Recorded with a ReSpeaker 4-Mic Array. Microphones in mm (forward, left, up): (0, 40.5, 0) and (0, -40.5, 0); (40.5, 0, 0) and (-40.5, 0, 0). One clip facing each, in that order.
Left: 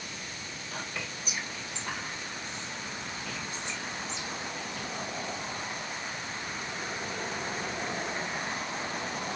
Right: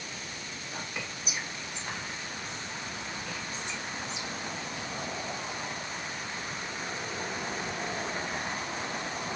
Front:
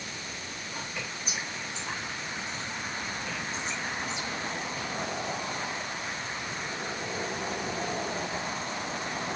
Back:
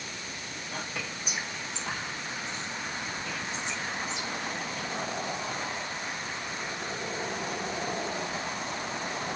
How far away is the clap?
No clap in this recording.